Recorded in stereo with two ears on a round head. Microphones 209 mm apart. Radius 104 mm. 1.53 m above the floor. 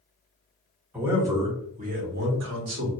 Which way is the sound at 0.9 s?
5° right (ahead or behind).